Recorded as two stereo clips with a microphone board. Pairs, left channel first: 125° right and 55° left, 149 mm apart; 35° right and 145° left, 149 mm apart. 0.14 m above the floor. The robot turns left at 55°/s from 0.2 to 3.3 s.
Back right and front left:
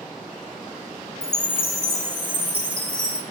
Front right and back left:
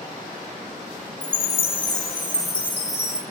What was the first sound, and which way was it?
A chime, 55° right.